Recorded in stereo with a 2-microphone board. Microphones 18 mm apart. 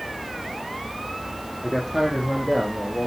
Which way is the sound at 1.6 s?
10° right (ahead or behind).